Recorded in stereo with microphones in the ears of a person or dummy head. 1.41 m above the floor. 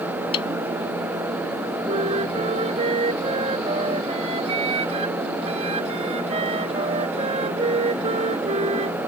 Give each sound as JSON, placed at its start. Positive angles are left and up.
{"t": 0.3, "sound": "a snare drum", "side_deg": 30}
{"t": 1.9, "sound": "a flute", "side_deg": -30}